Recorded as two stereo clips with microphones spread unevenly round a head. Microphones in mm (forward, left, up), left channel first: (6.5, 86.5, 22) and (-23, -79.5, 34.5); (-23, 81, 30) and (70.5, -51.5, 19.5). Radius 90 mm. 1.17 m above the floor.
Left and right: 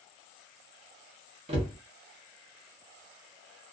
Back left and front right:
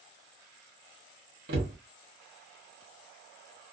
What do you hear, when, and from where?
1.5 s a cupboard door: 60° right, 0.7 m